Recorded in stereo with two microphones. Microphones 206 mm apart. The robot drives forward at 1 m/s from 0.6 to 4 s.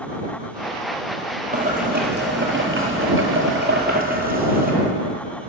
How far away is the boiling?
About 1.8 m.